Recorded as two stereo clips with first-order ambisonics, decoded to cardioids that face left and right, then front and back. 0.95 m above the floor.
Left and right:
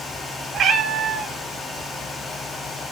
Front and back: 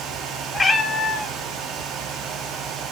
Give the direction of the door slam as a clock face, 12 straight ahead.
No door slam in this recording.